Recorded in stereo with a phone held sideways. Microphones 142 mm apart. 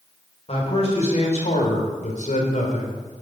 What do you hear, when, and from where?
0.5 s a man speaking: 45° left (ahead or behind), 3.5 m; by 3.0 s 70° left (ahead or behind), 3.5 m